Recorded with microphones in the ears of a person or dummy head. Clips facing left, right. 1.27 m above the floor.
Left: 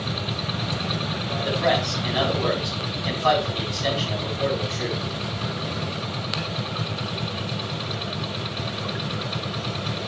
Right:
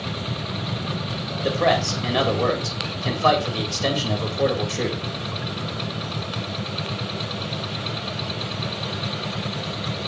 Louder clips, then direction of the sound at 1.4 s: Right 3 dB; 70° right (ahead or behind).